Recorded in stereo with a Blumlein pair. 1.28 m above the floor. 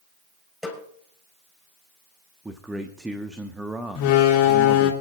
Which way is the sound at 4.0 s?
45° left.